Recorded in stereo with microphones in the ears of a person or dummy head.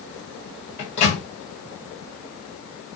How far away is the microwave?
About 1.5 m.